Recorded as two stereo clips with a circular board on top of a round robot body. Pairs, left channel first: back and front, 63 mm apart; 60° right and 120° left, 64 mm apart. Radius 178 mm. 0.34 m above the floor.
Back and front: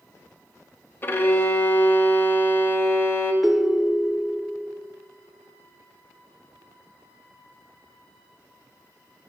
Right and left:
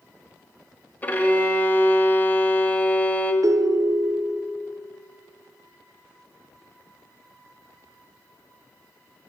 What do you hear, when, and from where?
1.0 s a violin: 125° right, 1.2 m
3.4 s a ringtone: 85° left, 0.5 m